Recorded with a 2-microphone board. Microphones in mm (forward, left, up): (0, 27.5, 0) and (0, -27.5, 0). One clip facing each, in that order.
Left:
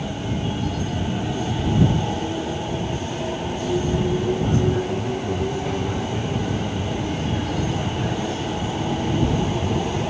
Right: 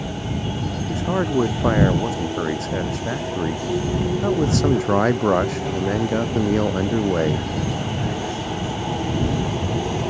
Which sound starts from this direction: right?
A man speaking, at 0.9 s.